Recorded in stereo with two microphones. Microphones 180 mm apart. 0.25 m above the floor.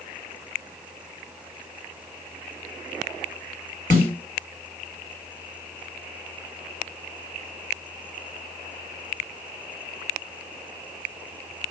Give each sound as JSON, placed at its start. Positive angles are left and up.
{"t": 3.9, "sound": "a snare drum", "side_deg": 20, "distance_m": 1.5}